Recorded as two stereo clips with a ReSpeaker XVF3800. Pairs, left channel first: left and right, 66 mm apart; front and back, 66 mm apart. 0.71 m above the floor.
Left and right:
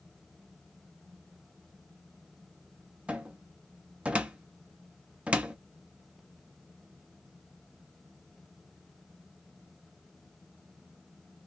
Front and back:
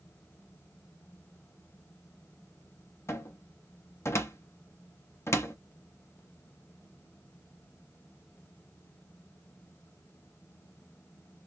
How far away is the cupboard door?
About 0.6 m.